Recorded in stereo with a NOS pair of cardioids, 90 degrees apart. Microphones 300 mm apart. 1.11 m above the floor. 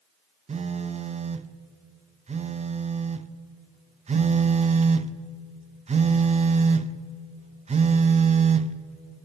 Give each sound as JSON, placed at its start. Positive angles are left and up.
{"t": 0.5, "sound": "a phone buzzing", "azimuth_deg": -20, "distance_m": 0.6}